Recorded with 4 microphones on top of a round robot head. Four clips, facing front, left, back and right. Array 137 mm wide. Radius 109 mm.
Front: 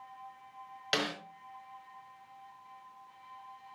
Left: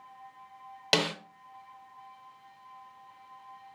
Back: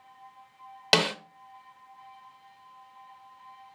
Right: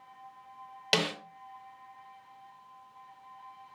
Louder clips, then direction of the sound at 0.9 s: Left 2 dB, back 8 dB; 170° left.